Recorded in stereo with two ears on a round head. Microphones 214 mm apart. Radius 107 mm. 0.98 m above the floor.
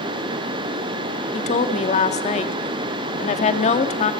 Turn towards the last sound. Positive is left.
turn(degrees=30)  # may be behind; listen again after turning